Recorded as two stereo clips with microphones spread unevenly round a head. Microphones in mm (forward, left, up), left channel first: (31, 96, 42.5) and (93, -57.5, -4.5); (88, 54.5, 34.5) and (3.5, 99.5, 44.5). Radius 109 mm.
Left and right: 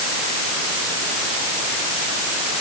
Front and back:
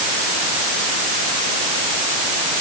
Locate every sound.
Only background noise.